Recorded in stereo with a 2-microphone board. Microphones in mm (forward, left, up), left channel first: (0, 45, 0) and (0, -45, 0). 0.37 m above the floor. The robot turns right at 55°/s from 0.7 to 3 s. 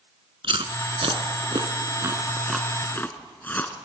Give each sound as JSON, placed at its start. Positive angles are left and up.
{"t": 0.4, "sound": "chewing", "side_deg": -75, "distance_m": 1.1}